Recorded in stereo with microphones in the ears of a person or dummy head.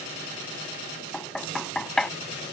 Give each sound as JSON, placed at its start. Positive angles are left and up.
{"t": 1.1, "sound": "knocking", "side_deg": 0}